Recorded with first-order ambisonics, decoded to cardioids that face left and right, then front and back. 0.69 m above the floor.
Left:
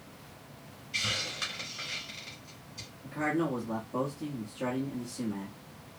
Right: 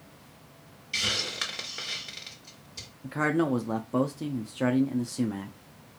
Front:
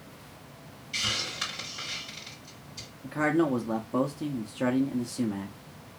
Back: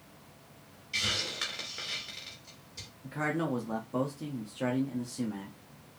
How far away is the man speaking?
About 0.6 m.